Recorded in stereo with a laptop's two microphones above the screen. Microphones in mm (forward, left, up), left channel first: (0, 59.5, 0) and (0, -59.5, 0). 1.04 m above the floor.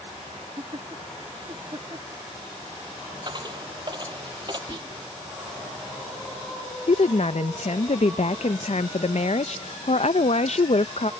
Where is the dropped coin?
35° right (ahead or behind).